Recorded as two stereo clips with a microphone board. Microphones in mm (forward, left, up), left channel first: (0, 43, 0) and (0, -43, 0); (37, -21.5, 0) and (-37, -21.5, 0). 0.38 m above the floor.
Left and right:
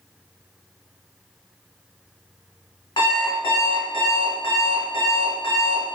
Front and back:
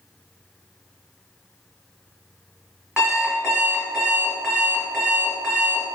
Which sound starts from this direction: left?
An alarm clock, at 3.0 s.